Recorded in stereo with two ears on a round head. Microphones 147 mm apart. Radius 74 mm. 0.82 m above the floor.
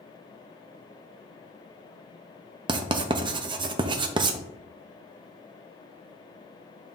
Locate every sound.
2.7 s writing: 30° right (ahead or behind), 0.7 m